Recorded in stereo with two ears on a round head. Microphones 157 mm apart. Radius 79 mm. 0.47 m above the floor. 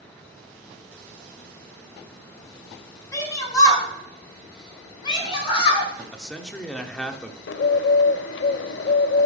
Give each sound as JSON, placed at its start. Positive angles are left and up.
{"t": 3.1, "sound": "a shout", "side_deg": 20, "distance_m": 3.0}
{"t": 6.1, "sound": "a man speaking", "side_deg": 5, "distance_m": 0.8}
{"t": 7.5, "sound": "a bird", "side_deg": 65, "distance_m": 0.5}